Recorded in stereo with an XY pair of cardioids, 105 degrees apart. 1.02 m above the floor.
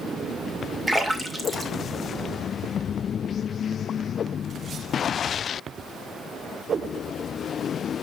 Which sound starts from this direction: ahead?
A splash, at 0.9 s.